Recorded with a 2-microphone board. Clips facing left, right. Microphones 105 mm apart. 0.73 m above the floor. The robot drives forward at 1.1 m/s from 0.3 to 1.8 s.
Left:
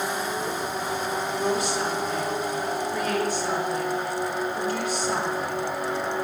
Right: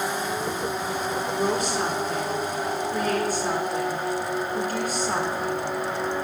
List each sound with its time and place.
1.4 s a woman speaking: 50° right (ahead or behind), 1.7 m; by 5.7 s 40° right (ahead or behind), 2.0 m